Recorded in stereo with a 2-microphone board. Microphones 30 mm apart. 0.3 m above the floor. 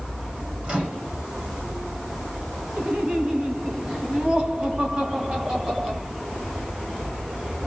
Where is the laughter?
35° right (ahead or behind), 2 m.